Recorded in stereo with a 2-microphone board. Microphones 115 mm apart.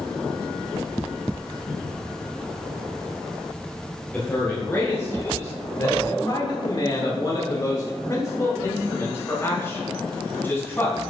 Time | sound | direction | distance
4.1 | a man speaking | 15° left (ahead or behind) | 1.8 m